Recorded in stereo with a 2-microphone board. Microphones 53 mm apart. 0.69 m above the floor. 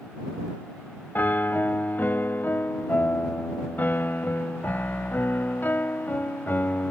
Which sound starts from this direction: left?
A piano, at 1.1 s.